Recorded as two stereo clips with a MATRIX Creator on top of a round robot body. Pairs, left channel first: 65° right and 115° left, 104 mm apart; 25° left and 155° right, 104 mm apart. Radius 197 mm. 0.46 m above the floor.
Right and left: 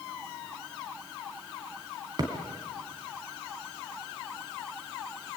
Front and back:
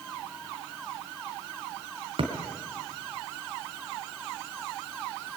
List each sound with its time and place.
2.2 s a thud: 165° left, 3 m